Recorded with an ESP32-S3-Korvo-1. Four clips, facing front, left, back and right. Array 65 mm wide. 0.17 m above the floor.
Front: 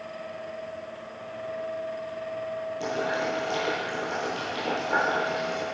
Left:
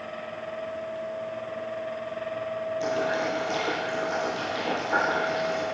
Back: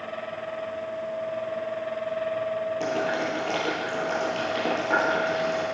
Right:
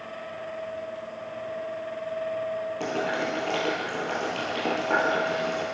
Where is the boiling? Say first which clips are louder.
Left 2 dB, front 1 dB; 130° right, 4.5 m.